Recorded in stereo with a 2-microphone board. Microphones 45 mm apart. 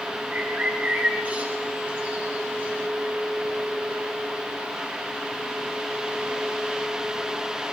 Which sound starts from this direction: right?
A bird, at 0.3 s.